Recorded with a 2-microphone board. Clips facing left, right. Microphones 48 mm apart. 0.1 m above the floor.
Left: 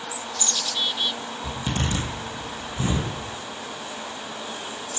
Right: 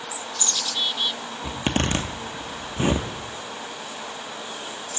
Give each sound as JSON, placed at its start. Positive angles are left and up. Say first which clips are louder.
{"t": 1.4, "sound": "a zipper", "louder": "right 4 dB", "side_deg": -60, "distance_m": 0.6}